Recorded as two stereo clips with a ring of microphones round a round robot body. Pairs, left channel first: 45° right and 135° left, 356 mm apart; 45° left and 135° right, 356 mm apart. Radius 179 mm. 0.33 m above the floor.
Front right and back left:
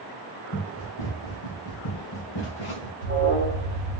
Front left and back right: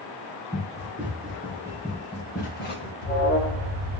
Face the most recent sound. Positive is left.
turn(degrees=-5)